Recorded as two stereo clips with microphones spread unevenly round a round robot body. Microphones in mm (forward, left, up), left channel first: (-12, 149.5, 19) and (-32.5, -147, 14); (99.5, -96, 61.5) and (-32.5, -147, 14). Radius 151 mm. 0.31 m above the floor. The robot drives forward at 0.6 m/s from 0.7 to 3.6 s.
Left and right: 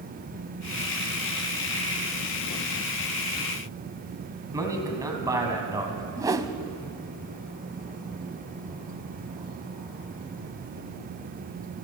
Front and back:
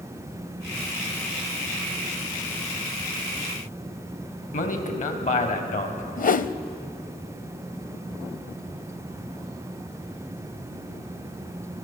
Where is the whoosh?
15° right, 0.7 m.